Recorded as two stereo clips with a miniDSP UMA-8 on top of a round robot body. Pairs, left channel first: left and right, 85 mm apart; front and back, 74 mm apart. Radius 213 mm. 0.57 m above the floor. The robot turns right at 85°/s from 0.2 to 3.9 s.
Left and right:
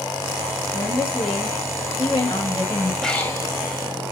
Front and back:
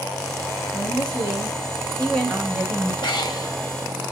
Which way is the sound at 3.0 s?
5° left.